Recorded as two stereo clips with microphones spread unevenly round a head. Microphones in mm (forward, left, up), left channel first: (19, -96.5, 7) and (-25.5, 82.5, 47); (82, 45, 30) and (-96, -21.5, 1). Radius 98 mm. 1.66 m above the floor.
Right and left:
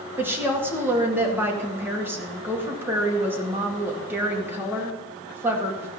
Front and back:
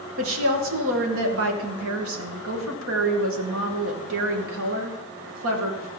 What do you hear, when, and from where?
0.2 s a woman speaking: 175° right, 2 m